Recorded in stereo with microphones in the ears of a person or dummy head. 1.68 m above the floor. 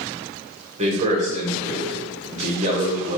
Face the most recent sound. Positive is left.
turn(degrees=-35)  # may be behind; listen again after turning